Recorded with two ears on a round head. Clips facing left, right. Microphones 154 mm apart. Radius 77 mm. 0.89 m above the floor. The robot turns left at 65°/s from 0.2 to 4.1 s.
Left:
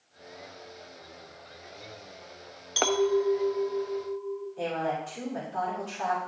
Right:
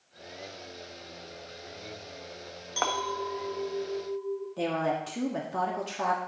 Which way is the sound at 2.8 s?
45° left.